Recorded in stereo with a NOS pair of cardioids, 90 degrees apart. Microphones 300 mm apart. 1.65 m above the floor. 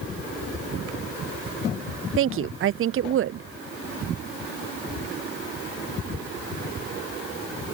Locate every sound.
2.2 s a woman speaking: 45° right